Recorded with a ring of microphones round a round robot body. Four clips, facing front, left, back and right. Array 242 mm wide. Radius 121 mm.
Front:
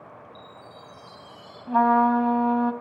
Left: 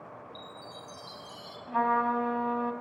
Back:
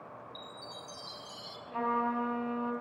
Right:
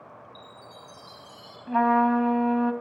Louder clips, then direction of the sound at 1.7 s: Right 6 dB, front 13 dB; 30° right.